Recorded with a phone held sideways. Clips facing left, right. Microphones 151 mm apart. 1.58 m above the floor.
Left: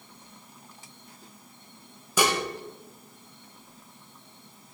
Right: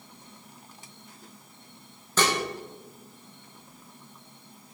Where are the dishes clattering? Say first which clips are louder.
Left 1 dB; 10° left (ahead or behind), 0.7 m.